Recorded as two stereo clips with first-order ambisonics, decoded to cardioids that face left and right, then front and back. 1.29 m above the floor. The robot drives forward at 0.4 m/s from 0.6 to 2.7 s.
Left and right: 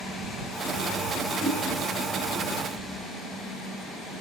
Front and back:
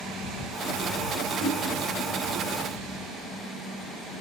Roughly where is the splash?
Behind.